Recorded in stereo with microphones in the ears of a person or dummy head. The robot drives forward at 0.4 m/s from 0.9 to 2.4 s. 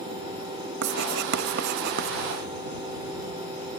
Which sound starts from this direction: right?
Writing, at 0.8 s.